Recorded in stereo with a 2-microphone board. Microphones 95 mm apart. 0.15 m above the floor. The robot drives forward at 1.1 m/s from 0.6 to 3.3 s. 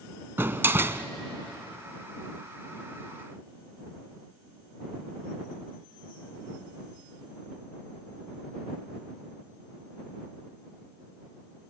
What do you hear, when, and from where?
0.4 s a door slam: 25° right (ahead or behind), 0.8 m